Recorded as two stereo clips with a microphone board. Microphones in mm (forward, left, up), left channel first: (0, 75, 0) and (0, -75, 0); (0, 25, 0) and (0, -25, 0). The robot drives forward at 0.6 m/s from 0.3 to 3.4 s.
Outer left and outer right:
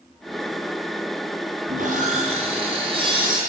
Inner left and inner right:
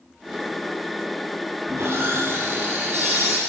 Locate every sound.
1.7 s sawing: 65° right (ahead or behind), 1.0 m; by 3.4 s 30° right (ahead or behind), 1.7 m